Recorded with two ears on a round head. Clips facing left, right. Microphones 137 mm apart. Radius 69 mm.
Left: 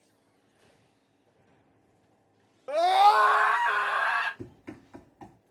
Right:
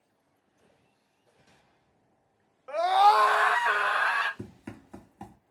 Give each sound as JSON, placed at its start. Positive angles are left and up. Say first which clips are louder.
{"t": 2.7, "sound": "a scream", "louder": "left 1 dB", "side_deg": 45, "distance_m": 0.8}
{"t": 4.4, "sound": "running footsteps", "louder": "even", "side_deg": -65, "distance_m": 3.0}